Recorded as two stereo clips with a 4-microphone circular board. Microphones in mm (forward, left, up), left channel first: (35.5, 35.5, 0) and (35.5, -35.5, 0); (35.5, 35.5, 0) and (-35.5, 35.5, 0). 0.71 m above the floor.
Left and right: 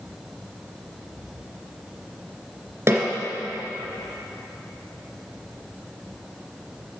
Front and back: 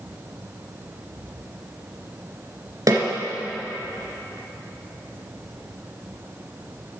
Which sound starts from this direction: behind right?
A snare drum, at 2.9 s.